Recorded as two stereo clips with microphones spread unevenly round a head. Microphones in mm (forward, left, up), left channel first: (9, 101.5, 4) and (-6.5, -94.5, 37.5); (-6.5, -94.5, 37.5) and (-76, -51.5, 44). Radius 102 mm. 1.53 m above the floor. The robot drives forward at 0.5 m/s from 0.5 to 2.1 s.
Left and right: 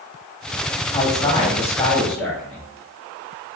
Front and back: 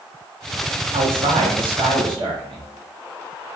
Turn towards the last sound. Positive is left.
turn(degrees=165)